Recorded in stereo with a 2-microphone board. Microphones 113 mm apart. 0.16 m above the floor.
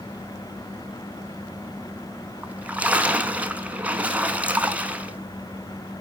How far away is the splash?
About 0.5 m.